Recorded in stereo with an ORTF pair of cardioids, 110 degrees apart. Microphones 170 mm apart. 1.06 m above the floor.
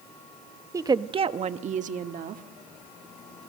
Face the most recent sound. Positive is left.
turn(degrees=-55)